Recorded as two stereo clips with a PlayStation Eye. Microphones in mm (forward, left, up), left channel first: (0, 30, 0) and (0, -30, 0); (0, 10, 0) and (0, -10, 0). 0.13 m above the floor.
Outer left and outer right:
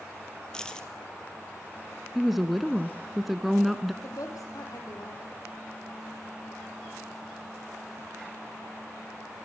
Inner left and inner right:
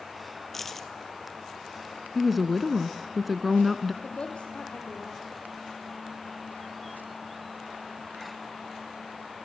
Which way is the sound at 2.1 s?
5° right (ahead or behind).